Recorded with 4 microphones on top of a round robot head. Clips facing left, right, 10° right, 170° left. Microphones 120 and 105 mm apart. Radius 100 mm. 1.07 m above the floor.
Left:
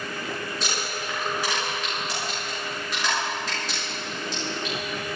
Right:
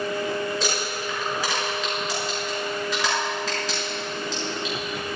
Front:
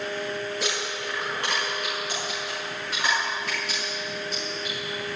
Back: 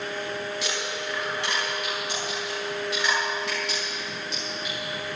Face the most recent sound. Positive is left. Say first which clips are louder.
# right 3 dB, front 1 dB
turn(degrees=-70)